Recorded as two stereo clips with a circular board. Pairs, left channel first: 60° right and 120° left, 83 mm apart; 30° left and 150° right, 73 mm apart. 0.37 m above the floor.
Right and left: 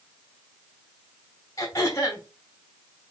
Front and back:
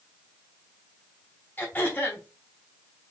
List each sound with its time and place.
1.6 s throat clearing: 25° right, 2 m